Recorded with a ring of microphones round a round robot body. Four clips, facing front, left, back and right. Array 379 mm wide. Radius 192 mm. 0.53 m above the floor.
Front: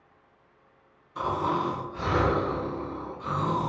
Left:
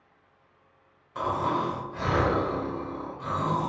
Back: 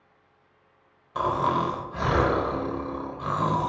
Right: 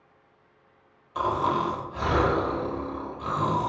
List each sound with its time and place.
1.1 s snoring: 170° right, 0.8 m